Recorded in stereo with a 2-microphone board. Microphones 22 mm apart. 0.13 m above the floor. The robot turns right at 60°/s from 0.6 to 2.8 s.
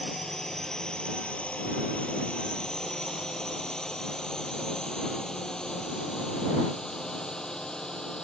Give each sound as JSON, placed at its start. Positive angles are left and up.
{"t": 0.0, "sound": "a drone", "side_deg": 20}